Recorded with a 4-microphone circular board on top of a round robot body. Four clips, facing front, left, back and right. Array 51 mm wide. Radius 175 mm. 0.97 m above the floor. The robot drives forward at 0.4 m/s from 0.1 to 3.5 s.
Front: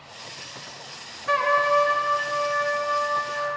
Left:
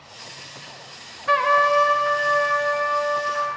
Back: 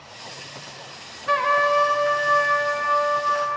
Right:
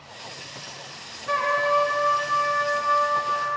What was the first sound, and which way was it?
A trumpet, 95° left.